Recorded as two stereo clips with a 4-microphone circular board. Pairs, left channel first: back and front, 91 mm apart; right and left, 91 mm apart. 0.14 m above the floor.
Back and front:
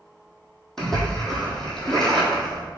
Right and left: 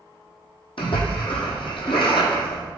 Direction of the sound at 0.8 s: 95° right.